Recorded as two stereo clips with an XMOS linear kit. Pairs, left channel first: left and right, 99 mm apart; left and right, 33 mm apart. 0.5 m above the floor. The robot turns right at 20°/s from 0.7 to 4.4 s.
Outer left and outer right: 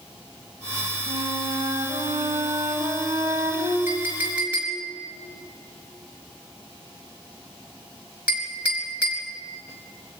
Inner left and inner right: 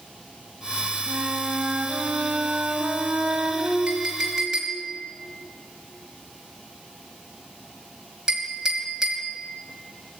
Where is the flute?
80° right, 4 m; by 3.8 s 30° right, 4 m.